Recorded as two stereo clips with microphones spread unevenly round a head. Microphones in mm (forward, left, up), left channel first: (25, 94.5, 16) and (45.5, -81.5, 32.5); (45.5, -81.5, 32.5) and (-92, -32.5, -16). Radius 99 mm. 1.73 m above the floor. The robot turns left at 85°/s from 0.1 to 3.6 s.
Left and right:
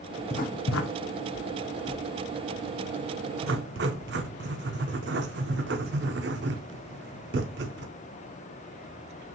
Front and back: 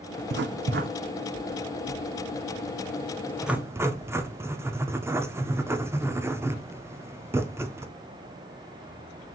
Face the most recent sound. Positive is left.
turn(degrees=-125)